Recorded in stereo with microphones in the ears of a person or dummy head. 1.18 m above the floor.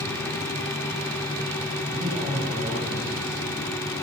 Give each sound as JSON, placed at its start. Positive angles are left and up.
{"t": 1.9, "sound": "a man speaking", "side_deg": -45, "distance_m": 9.0}